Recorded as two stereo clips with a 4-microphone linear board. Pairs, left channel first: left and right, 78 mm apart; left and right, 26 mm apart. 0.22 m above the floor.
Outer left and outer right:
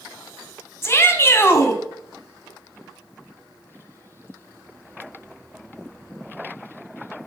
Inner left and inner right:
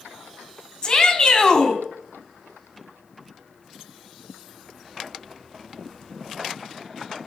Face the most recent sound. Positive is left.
turn(degrees=35)  # may be behind; listen again after turning